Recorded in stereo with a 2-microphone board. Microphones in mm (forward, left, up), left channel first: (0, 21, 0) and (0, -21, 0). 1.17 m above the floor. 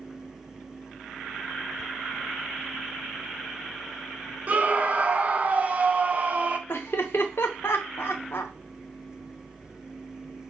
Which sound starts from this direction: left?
Laughter, at 6.7 s.